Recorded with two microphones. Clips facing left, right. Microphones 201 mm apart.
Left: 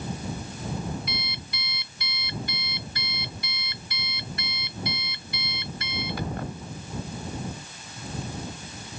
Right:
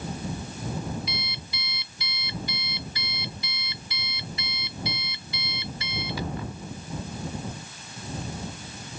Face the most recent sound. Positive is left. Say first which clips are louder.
# left 1 dB
turn(degrees=60)  # may be behind; listen again after turning